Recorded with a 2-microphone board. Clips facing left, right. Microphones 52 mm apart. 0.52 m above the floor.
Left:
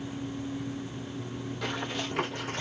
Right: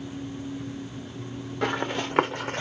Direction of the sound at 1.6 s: 60° right (ahead or behind).